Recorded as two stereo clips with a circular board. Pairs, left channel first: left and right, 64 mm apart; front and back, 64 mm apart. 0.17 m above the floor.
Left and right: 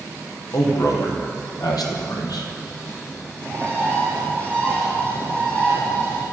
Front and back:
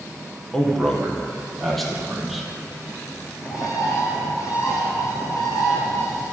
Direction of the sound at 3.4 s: 25° left.